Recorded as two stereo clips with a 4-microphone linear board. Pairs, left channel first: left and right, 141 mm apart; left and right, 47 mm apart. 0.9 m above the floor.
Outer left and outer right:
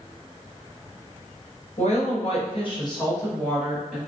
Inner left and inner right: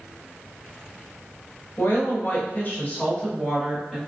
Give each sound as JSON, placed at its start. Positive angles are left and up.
{"t": 1.8, "sound": "a woman speaking", "side_deg": 55, "distance_m": 1.3}